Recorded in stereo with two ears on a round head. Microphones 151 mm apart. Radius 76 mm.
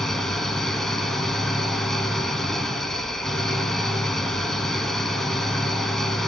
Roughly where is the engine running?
Centre.